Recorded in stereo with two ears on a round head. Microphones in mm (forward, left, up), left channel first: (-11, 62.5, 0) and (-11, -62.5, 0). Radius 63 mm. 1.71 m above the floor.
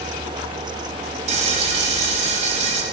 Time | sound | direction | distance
1.3 | frying | 50° right (ahead or behind) | 4 m